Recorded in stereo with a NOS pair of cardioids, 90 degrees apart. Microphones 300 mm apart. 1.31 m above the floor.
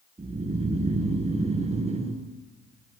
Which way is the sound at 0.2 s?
20° right.